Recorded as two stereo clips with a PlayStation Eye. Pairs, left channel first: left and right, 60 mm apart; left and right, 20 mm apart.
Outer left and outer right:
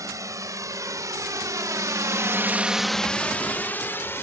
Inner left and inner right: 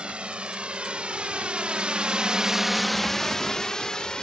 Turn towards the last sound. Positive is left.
turn(degrees=40)  # may be behind; listen again after turning